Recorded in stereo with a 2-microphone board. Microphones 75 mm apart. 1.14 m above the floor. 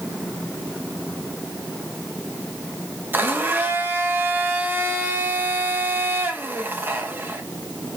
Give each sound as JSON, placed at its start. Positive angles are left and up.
{"t": 3.1, "sound": "a blender", "side_deg": -25, "distance_m": 1.2}